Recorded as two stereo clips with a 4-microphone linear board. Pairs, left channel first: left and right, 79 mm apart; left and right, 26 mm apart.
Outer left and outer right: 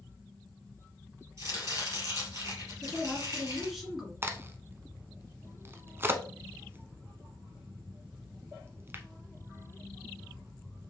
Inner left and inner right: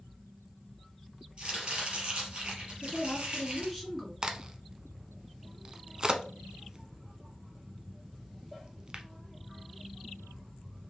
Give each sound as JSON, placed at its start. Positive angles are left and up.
{"t": 1.4, "sound": "chopping", "side_deg": -40, "distance_m": 3.0}
{"t": 2.8, "sound": "a woman speaking", "side_deg": -5, "distance_m": 2.5}
{"t": 4.2, "sound": "a crack", "side_deg": -30, "distance_m": 0.6}